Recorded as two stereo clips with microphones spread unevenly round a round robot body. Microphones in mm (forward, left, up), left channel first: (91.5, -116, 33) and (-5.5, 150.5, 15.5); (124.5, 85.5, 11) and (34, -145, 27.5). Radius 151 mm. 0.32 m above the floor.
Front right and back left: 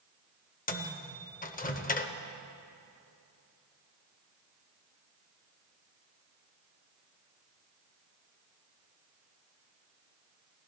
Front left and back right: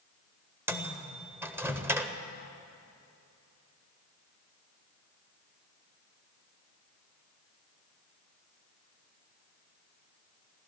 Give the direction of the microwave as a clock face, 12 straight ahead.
1 o'clock.